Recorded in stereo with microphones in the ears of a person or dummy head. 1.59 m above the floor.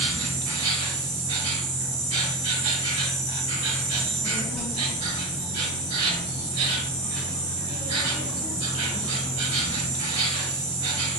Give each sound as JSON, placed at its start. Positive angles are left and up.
{"t": 0.0, "sound": "an insect", "side_deg": -40, "distance_m": 0.9}
{"t": 3.9, "sound": "a child speaking", "side_deg": 0, "distance_m": 2.0}